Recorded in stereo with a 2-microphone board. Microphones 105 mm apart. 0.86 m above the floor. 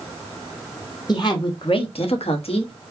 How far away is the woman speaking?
About 1.3 m.